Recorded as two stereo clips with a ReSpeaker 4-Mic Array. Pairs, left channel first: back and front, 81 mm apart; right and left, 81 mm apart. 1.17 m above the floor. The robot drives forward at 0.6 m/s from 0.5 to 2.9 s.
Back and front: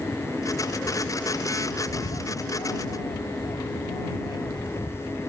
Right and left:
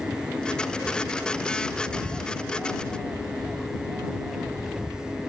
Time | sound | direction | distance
1.9 | a bird | 175° left | ?